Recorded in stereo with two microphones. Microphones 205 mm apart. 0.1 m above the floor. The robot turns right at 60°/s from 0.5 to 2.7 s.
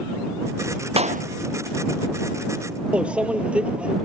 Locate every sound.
1.0 s a clap: 30° right (ahead or behind); by 1.2 s 50° right (ahead or behind)
2.9 s a microwave: 5° right (ahead or behind)